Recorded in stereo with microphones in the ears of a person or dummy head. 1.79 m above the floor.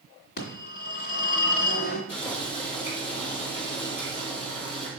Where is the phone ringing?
60° left (ahead or behind), 2.5 m.